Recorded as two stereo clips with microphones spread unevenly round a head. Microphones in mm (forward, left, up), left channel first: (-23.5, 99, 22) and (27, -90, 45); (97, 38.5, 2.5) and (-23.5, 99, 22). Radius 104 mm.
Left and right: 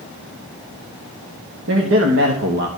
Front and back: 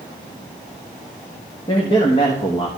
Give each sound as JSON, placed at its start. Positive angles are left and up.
{"t": 1.7, "sound": "a man speaking", "azimuth_deg": -85, "distance_m": 1.6}